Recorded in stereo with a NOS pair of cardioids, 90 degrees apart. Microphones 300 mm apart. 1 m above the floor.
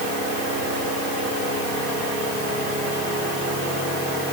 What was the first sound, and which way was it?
Only background noise.